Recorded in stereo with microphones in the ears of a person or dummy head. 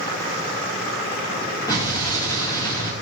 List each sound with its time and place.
1.7 s an explosion: 20° left (ahead or behind), 3.5 m